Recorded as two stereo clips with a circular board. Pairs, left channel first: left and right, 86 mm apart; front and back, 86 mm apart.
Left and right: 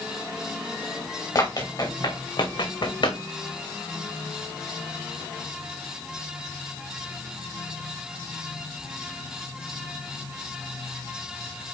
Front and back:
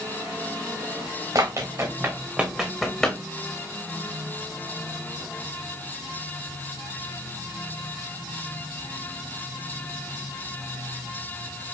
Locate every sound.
1.4 s running footsteps: 135° left, 2.5 m; by 3.2 s 75° left, 2 m